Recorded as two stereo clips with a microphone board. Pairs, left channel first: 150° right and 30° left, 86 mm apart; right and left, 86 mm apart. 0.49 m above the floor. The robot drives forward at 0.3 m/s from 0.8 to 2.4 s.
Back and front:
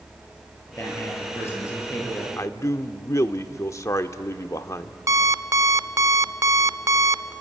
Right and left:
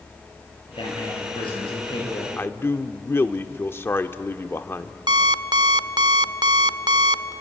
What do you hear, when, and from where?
0.7 s a man speaking: 90° right, 9 m
2.4 s a man speaking: 135° right, 0.9 m
5.1 s an alarm clock: 75° left, 0.6 m